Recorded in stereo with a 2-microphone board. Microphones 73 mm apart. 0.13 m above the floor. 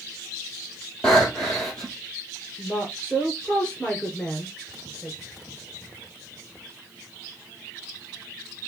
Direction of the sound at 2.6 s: 10° left (ahead or behind).